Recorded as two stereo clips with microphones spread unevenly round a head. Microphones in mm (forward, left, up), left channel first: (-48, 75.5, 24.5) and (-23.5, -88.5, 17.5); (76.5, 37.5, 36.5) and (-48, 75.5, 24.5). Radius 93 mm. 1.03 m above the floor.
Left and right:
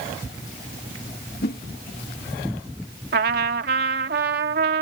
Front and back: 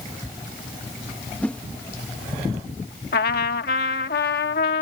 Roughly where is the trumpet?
Ahead right.